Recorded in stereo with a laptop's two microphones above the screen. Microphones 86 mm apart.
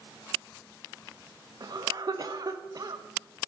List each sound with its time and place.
1.6 s a cough: 50° right (ahead or behind), 1.3 m